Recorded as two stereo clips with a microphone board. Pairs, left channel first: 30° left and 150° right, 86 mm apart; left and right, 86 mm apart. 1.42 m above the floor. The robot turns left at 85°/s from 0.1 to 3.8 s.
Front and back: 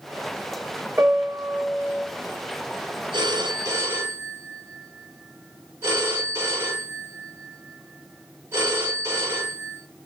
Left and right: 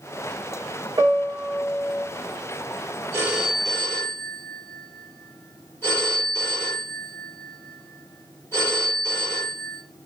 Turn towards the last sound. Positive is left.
turn(degrees=155)